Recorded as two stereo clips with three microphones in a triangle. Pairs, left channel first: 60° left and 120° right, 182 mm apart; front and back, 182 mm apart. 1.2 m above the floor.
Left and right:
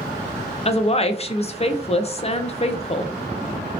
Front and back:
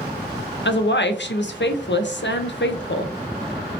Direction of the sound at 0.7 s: Straight ahead.